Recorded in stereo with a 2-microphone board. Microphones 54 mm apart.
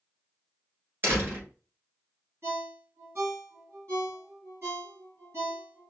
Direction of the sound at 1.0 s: 40° right (ahead or behind).